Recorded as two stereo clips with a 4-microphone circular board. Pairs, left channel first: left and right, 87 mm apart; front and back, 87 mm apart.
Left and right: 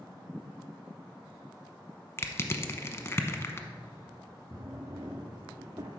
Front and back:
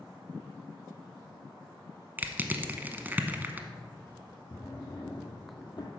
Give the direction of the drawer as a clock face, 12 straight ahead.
1 o'clock.